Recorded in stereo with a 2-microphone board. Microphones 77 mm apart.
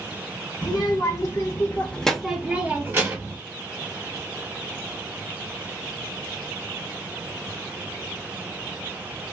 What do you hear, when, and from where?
0.6 s a child speaking: 60° left (ahead or behind), 0.9 m; by 3.4 s 40° right (ahead or behind), 0.9 m